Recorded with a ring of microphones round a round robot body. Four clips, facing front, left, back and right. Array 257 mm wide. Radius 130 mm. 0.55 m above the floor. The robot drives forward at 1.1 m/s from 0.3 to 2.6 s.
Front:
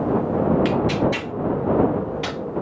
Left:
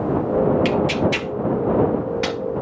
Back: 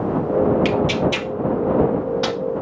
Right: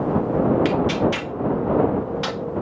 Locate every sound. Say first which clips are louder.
0.7 s tearing paper: left 1 dB, back 1 dB; 140° left, 2.5 m; by 2.4 s 155° left, 4 m